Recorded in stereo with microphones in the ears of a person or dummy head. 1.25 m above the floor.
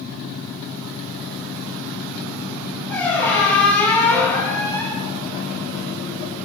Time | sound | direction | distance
2.9 | a squeak | 10° left (ahead or behind) | 0.6 m